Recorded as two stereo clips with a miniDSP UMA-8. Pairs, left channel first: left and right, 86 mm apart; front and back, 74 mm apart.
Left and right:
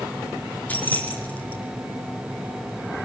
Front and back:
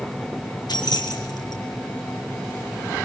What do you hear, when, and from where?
0.7 s keys jangling: 20° left, 3 m